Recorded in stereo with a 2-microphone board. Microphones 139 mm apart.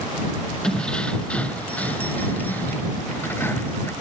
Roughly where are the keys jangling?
Centre.